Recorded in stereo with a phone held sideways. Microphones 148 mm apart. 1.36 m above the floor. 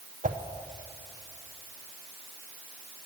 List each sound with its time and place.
0.2 s a whoosh: 65° right (ahead or behind), 0.7 m